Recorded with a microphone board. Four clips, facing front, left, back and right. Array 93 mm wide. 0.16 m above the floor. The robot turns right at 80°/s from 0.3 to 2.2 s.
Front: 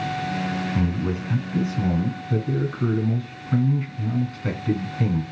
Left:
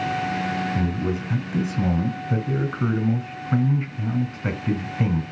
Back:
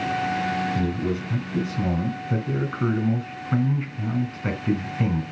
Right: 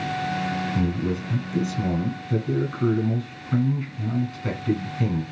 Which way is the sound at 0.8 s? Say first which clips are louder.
Even, even; 15° left.